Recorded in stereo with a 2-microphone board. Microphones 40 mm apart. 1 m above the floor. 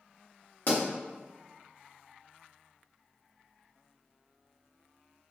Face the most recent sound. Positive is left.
turn(degrees=50)  # may be behind; listen again after turning